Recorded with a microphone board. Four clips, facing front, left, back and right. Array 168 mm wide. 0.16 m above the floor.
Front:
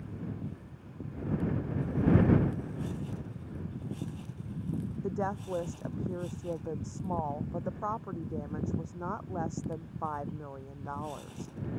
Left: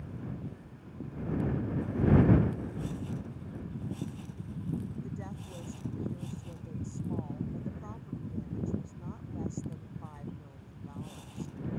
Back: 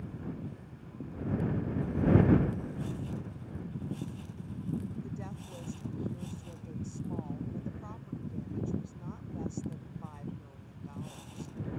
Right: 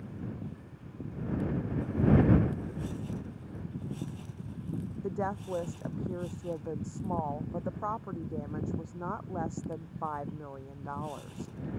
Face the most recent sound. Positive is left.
turn(degrees=-45)